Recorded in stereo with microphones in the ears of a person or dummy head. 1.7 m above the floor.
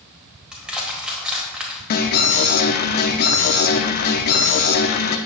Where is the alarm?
50° left (ahead or behind), 0.6 m.